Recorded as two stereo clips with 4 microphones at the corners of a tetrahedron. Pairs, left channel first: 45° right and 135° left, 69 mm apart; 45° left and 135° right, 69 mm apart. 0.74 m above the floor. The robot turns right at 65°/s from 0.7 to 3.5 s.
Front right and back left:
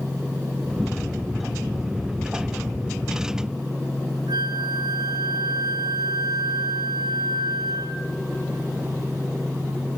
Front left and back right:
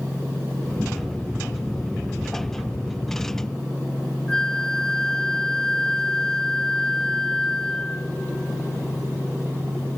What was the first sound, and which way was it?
A flute, 125° left.